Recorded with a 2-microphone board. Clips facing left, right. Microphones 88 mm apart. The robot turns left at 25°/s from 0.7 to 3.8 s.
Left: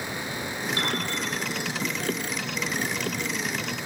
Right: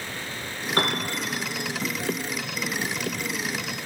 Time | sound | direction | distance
0.8 | a piano | 50° right (ahead or behind) | 4.5 m